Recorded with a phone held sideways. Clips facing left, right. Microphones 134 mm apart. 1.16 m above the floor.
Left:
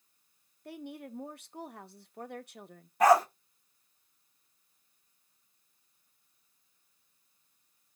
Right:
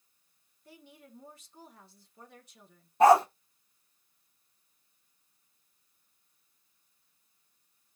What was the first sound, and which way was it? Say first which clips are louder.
A woman speaking: left 11 dB; 65° left (ahead or behind).